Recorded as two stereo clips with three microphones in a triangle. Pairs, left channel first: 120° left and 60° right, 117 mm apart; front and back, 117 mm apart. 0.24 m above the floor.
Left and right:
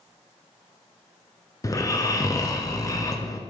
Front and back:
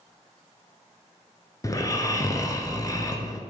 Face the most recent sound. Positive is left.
turn(degrees=60)